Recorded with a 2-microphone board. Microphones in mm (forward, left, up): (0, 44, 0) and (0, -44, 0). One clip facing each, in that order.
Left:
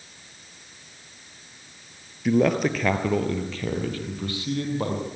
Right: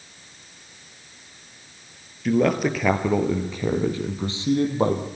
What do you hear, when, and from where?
2.2 s a man speaking: 5° left (ahead or behind), 2.5 m; by 5.1 s 25° right (ahead or behind), 4 m